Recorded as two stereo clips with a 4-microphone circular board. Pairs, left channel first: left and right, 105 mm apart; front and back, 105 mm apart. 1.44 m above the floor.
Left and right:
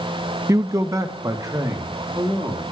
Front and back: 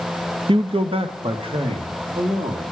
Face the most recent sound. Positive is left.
turn(degrees=-145)